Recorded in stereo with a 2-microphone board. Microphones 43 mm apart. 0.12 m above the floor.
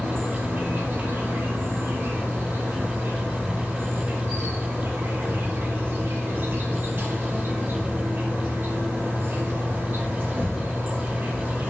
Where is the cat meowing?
I don't hear a cat meowing.